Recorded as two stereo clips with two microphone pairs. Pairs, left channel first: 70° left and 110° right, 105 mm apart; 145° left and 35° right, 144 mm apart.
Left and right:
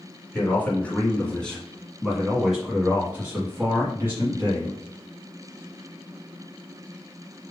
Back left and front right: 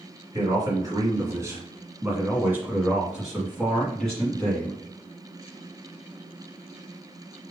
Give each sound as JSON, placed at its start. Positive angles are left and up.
{"t": 0.3, "sound": "a man speaking", "azimuth_deg": 10, "distance_m": 1.9}